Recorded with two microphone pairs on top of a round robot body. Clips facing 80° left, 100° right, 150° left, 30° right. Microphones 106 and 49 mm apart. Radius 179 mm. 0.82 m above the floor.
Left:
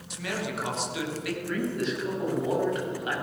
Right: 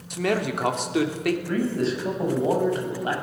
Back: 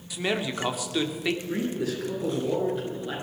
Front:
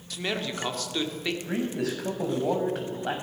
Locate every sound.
0.1 s a man speaking: 130° right, 3.5 m
1.5 s a man speaking: 45° right, 7.5 m